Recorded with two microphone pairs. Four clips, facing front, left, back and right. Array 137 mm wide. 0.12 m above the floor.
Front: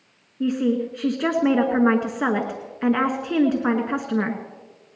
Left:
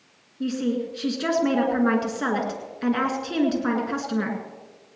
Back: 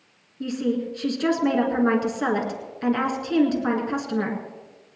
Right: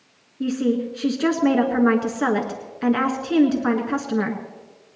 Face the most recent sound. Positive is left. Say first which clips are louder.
# right 4 dB, front 4 dB
turn(degrees=-30)